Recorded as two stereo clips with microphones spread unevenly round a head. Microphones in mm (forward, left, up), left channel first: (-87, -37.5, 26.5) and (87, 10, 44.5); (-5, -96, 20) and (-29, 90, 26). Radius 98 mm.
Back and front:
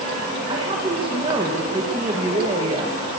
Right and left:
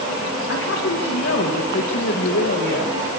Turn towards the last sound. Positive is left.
turn(degrees=-50)